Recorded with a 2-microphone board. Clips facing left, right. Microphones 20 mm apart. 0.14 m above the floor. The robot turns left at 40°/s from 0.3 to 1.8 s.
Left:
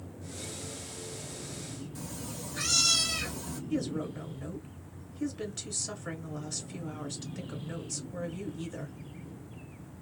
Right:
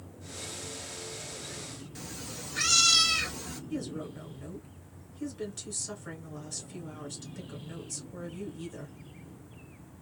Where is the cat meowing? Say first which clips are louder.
Right 2 dB; 30° right (ahead or behind), 0.9 m.